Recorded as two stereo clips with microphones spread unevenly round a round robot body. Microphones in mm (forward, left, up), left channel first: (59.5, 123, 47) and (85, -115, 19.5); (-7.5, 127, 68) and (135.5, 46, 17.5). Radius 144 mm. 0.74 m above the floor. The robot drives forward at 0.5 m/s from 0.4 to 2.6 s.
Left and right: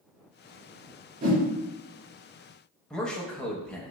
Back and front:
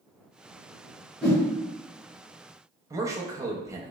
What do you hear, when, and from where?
1.2 s a whoosh: 140° right, 0.5 m; by 1.4 s 150° right, 0.6 m
2.9 s a man speaking: 5° left, 0.6 m